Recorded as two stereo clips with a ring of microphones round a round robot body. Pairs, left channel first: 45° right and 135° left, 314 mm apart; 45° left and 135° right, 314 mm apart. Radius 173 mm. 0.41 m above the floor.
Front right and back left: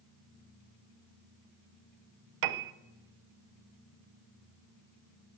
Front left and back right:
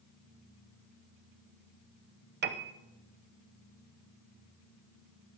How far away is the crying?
I don't hear crying.